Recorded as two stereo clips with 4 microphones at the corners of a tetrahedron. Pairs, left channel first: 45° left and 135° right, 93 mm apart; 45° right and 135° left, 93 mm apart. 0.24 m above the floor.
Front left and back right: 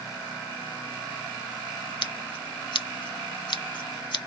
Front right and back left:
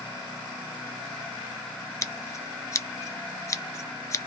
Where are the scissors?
10° left, 0.5 m.